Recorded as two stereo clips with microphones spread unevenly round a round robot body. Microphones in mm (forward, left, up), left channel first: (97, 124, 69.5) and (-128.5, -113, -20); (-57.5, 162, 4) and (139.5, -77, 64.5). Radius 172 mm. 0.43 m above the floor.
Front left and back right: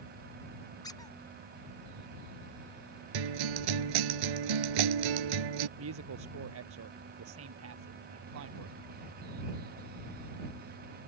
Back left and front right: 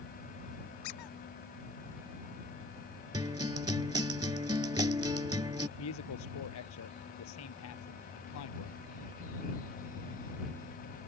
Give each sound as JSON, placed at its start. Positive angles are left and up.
{"t": 0.8, "sound": "a squeak", "azimuth_deg": 125}
{"t": 3.1, "sound": "a guitar", "azimuth_deg": -130}
{"t": 5.8, "sound": "a woman speaking", "azimuth_deg": 180}